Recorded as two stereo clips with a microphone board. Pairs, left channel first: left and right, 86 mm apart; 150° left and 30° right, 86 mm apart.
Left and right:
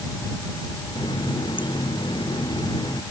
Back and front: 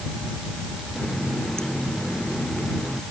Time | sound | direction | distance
0.9 | a running tap | 70° left | ?